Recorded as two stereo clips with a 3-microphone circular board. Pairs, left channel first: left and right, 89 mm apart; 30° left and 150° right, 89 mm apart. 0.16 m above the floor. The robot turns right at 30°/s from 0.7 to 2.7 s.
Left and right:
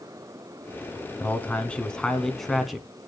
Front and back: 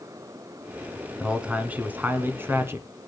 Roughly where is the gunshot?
I don't hear a gunshot.